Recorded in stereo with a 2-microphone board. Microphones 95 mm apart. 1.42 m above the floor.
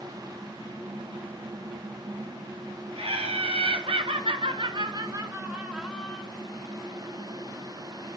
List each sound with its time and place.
3.0 s laughter: 80° right, 1.4 m; by 6.2 s 10° left (ahead or behind), 0.7 m